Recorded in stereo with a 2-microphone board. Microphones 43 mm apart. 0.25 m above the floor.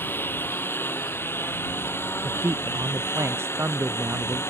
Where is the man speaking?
85° right.